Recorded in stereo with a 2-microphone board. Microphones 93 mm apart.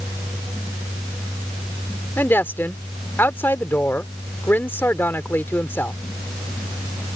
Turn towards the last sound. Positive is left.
turn(degrees=25)  # may be behind; listen again after turning